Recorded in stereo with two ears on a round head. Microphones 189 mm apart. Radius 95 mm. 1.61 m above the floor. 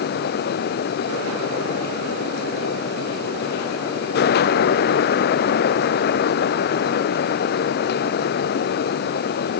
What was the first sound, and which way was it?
Only background noise.